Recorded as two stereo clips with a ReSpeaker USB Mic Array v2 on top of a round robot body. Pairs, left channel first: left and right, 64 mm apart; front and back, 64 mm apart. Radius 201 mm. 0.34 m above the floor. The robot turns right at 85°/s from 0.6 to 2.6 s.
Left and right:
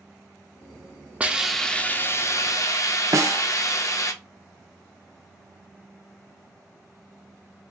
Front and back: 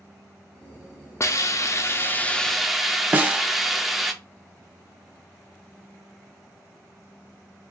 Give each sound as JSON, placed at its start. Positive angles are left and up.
{"t": 1.2, "sound": "a hiss", "azimuth_deg": -25, "distance_m": 0.8}
{"t": 3.1, "sound": "a snare drum", "azimuth_deg": -120, "distance_m": 0.8}